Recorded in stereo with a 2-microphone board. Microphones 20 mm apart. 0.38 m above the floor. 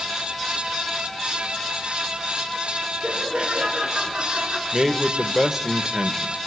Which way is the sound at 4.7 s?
25° right (ahead or behind).